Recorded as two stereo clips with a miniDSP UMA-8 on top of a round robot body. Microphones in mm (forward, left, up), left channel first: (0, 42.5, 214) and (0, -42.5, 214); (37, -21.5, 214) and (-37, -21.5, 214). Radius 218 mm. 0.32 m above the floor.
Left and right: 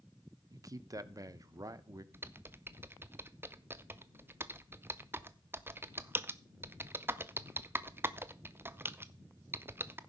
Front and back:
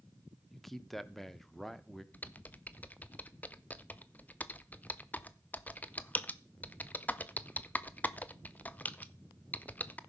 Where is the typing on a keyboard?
50° right, 0.8 m.